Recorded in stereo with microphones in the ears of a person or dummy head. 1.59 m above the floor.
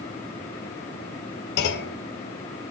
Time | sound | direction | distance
1.6 | a clunk | 60° left (ahead or behind) | 1.8 m